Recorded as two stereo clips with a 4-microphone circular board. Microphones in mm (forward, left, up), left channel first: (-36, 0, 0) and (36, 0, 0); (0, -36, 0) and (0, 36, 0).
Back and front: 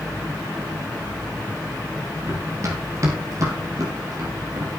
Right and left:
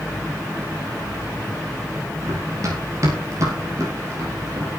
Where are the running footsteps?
50° left, 7 m; by 4.7 s 40° left, 8.5 m.